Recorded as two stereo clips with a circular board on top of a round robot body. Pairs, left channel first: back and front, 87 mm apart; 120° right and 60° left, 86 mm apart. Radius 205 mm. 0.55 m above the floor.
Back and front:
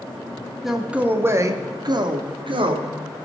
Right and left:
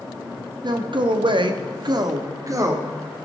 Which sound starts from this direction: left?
A man speaking, at 0.6 s.